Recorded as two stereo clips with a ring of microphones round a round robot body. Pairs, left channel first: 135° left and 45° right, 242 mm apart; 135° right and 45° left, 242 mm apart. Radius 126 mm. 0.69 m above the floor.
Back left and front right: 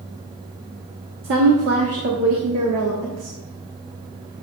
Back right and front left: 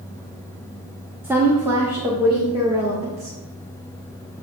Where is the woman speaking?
35° right, 1.0 m.